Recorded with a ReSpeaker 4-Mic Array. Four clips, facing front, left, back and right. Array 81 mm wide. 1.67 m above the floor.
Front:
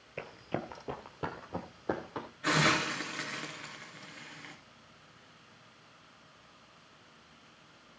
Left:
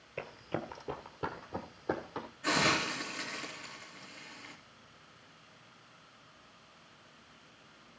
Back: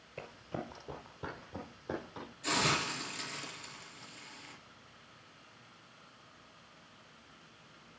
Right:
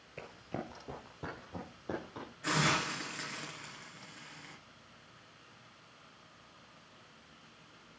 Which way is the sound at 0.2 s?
35° left.